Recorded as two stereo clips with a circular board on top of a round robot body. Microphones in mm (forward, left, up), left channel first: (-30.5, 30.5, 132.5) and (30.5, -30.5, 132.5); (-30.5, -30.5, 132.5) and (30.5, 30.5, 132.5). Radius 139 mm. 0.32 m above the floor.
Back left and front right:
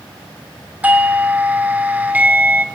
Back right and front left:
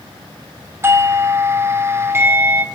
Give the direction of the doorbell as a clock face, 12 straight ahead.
12 o'clock.